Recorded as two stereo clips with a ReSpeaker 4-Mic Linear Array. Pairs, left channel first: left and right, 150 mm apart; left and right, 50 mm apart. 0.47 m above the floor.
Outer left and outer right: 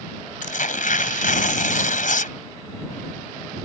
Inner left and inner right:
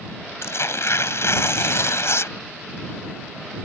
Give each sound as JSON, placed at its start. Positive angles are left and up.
{"t": 0.4, "sound": "tearing paper", "side_deg": 65}